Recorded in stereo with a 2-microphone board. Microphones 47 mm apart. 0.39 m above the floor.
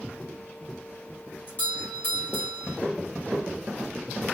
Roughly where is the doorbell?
Left.